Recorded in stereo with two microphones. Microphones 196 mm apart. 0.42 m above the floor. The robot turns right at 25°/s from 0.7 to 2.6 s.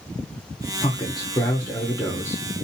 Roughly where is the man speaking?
Left.